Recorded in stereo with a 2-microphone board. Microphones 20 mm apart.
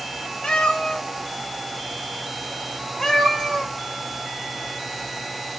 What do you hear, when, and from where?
0.4 s a cat meowing: 65° left (ahead or behind), 0.7 m; by 3.7 s 20° left (ahead or behind), 1.6 m